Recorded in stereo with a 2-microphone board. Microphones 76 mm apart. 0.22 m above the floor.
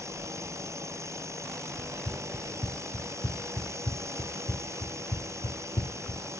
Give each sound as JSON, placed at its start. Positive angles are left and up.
{"t": 0.0, "sound": "a drone", "side_deg": -40}
{"t": 1.8, "sound": "running footsteps", "side_deg": 20}